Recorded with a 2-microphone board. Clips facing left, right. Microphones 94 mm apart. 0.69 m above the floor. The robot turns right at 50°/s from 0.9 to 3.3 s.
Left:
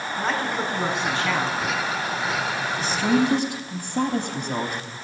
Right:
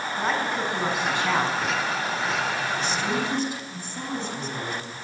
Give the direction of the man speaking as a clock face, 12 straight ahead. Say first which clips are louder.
Left 1 dB; 6 o'clock.